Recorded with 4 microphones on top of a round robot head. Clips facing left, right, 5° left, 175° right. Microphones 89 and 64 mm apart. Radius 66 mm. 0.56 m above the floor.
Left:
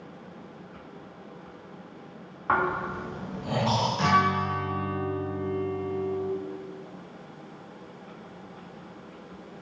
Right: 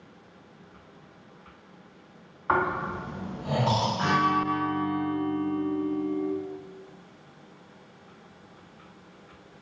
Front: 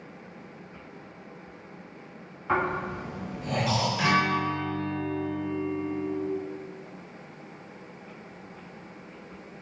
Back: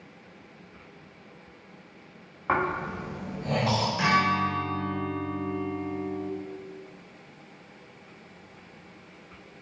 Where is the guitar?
105° left, 0.7 m.